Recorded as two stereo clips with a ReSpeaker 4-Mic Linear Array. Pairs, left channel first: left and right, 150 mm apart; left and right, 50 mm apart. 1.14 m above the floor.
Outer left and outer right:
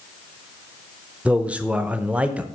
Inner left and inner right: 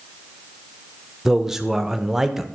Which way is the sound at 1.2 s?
10° right (ahead or behind).